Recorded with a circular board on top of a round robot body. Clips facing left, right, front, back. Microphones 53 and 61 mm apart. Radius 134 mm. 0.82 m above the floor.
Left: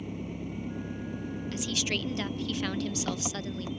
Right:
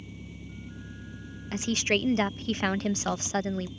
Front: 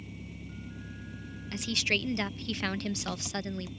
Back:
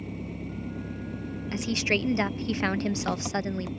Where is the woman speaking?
125° right.